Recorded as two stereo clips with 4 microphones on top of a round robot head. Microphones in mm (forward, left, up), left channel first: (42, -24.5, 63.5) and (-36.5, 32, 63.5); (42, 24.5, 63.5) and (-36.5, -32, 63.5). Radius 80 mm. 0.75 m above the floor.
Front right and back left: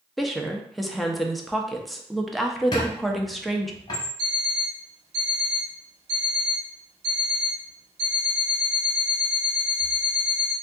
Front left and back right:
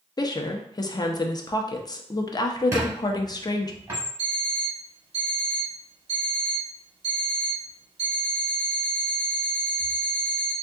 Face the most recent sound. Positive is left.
turn(degrees=180)